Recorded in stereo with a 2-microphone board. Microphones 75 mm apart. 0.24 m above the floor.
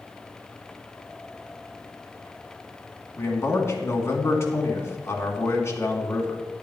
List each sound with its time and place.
3.2 s a man speaking: 40° left (ahead or behind), 2.5 m